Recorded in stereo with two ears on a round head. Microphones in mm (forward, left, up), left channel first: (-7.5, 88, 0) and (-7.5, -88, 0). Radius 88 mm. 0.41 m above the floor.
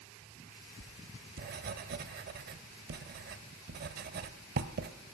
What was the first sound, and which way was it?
Writing, 50° right (ahead or behind).